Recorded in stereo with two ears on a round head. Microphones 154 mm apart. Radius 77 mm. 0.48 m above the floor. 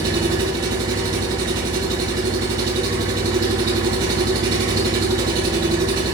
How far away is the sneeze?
No sneeze in this recording.